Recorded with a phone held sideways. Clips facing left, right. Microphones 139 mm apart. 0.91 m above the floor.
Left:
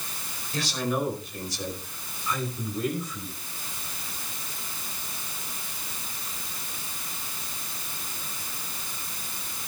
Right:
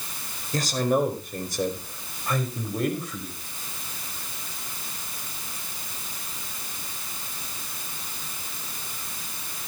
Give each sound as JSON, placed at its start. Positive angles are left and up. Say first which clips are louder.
{"t": 0.5, "sound": "a man speaking", "louder": "right 5 dB", "side_deg": -45, "distance_m": 4.5}